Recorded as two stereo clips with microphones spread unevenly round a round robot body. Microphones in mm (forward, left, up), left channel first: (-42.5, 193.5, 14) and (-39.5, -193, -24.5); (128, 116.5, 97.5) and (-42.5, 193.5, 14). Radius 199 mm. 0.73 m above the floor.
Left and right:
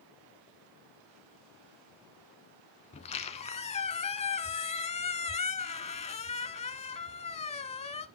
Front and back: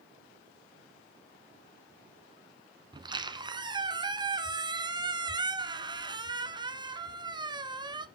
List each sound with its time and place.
2.9 s a squeak: 60° left, 0.7 m